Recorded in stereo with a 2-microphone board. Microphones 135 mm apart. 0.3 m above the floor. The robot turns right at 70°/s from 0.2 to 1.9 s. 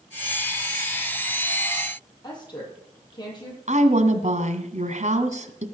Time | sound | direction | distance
2.2 | a woman speaking | 30° left (ahead or behind) | 10 m
3.7 | a woman speaking | 60° right (ahead or behind) | 2.0 m